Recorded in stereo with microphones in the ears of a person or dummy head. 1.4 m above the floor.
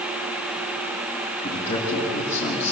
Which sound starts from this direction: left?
A man speaking, at 1.4 s.